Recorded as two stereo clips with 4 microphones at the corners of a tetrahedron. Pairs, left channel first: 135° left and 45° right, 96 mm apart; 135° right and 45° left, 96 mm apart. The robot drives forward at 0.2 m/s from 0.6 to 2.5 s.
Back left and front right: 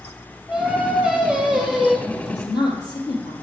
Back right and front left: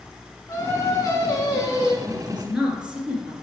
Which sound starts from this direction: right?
Singing, at 0.5 s.